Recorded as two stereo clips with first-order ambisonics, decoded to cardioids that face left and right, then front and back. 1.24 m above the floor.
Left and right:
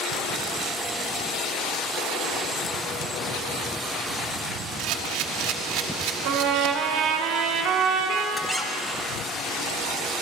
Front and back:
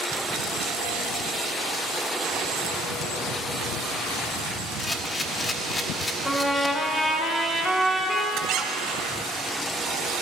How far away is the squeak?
About 0.8 m.